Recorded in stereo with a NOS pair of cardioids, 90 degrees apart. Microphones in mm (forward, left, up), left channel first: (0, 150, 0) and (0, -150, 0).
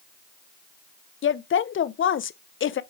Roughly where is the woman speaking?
Ahead left.